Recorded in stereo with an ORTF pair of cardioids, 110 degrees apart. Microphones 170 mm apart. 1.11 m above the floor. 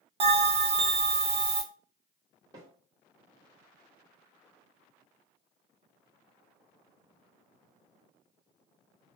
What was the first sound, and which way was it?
A bell, 35° right.